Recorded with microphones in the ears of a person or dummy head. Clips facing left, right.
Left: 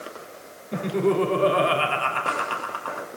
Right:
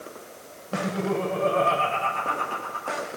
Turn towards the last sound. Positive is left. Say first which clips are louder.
# left 5 dB
turn(degrees=85)